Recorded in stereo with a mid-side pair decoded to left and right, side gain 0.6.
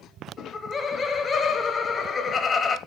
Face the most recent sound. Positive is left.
turn(degrees=25)